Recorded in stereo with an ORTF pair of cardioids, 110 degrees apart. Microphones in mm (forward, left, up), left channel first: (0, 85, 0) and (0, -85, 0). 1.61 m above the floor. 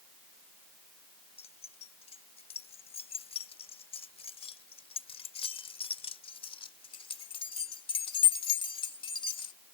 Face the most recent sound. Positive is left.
turn(degrees=30)